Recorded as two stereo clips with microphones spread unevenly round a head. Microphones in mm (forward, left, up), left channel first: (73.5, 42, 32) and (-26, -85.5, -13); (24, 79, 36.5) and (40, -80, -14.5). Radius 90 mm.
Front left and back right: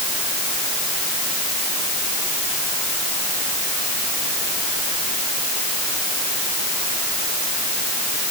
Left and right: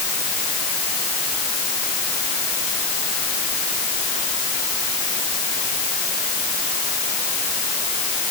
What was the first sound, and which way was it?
Only background noise.